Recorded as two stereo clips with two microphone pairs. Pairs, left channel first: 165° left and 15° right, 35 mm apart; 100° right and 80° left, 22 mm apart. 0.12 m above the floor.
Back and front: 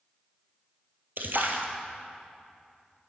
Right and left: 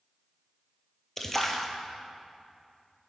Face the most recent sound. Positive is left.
turn(degrees=-25)